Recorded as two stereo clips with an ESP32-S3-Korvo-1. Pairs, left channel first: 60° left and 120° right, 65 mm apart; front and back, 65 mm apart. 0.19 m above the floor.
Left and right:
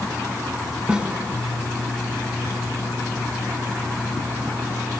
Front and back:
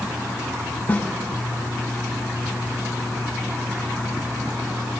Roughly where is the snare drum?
Ahead right.